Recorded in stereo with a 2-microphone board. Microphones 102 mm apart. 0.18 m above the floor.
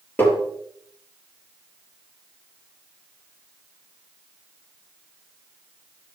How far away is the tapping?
About 4 m.